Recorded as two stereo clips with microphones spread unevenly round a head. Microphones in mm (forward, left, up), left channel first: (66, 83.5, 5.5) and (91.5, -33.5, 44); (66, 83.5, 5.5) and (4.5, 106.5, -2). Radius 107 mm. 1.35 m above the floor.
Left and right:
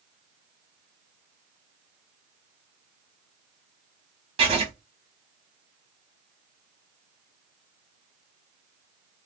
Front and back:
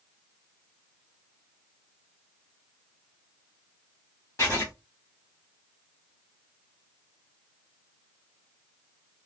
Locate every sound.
4.4 s writing: 75° right, 0.9 m